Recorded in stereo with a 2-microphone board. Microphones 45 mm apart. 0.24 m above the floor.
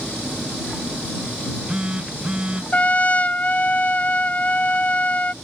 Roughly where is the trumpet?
Left.